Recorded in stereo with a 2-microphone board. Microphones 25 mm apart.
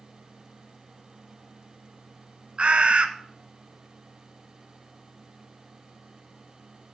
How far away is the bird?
About 0.9 m.